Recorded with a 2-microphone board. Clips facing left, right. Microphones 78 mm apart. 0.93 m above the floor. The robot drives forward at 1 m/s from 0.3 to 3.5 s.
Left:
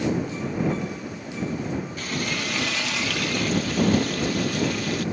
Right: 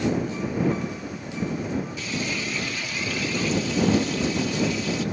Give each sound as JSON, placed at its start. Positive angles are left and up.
{"t": 2.0, "sound": "frying", "side_deg": 50, "distance_m": 1.4}